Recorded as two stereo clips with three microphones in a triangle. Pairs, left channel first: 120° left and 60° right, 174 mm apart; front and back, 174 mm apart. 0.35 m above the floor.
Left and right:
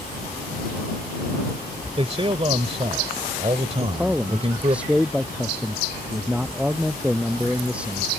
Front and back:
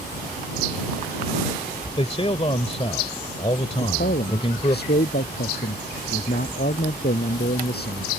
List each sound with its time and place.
2.0 s a man speaking: 30° right
3.8 s a man speaking: 25° left